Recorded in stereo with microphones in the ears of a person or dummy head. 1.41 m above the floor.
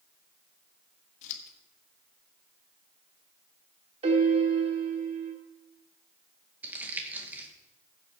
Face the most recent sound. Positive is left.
turn(degrees=-10)  # may be behind; listen again after turning